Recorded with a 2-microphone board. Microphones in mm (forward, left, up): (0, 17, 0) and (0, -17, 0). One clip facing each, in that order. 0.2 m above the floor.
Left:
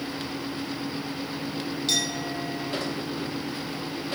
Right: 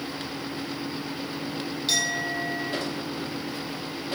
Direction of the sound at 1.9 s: 10° right (ahead or behind).